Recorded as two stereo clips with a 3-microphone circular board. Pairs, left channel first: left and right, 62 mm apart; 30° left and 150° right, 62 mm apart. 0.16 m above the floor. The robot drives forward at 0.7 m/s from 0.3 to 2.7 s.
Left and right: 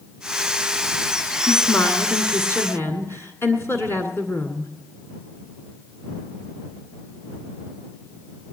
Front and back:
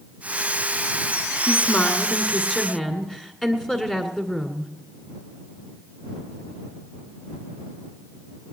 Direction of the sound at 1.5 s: 70° left.